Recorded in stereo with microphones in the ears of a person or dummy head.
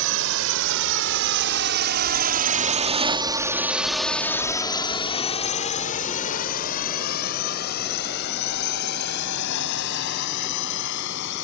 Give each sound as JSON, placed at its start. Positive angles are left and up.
{"t": 0.0, "sound": "a drone", "side_deg": -75}